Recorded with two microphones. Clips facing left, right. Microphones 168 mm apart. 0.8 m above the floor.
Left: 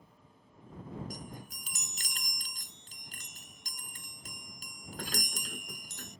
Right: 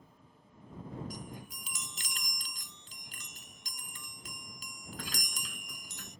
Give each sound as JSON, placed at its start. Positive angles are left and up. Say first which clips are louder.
{"t": 1.1, "sound": "a chime", "louder": "even", "side_deg": 45}